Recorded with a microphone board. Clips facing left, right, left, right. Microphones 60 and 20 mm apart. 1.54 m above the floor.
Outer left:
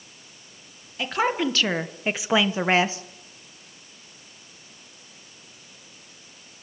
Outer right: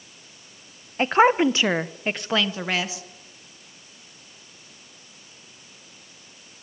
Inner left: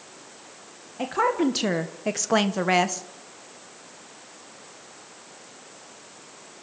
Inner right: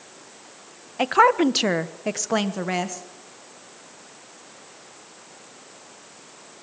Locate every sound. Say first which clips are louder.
1.0 s a woman speaking: outer right 7 dB, inner right 6 dB; 40° right (ahead or behind), 1.4 m; by 3.0 s 40° left (ahead or behind), 1.4 m